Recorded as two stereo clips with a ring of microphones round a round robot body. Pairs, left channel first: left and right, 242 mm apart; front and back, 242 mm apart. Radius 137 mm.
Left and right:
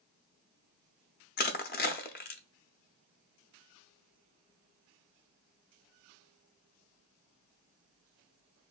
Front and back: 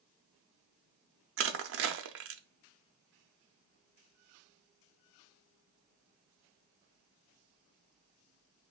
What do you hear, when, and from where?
1.4 s crushing: 145° left, 0.5 m